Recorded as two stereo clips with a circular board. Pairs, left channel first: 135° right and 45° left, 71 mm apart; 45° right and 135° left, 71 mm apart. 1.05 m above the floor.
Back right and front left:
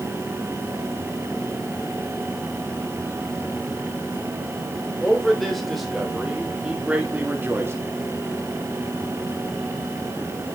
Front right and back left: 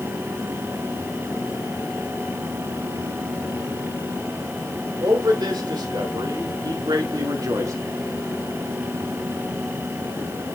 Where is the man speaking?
140° left, 3.5 m; by 7.8 s 95° left, 1.6 m.